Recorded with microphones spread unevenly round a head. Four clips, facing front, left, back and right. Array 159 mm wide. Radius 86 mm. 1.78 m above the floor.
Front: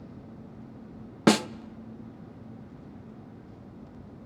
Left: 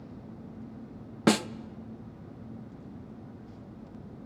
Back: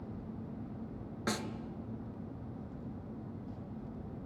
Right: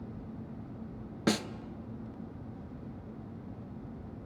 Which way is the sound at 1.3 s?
20° left.